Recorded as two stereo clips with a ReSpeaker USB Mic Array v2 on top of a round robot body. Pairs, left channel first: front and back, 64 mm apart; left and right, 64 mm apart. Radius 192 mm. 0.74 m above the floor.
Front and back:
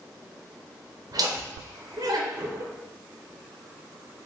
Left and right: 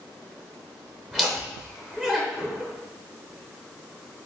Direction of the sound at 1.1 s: Straight behind.